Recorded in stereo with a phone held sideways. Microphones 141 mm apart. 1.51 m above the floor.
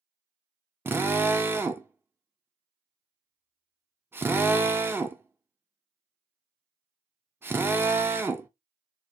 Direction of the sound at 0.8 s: 15° right (ahead or behind).